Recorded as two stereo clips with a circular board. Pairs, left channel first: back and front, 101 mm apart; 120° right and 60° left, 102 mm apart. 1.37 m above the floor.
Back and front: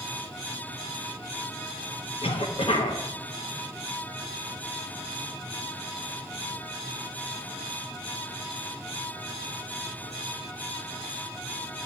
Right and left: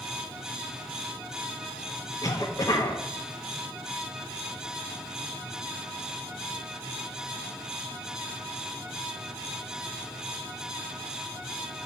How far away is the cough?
About 0.9 m.